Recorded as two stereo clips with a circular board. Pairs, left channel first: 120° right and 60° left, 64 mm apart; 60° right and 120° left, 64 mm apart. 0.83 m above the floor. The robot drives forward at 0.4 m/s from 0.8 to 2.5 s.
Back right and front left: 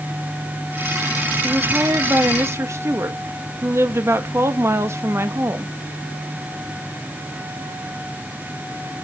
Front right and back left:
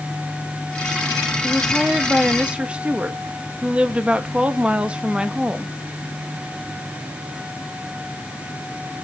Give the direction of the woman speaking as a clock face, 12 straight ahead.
11 o'clock.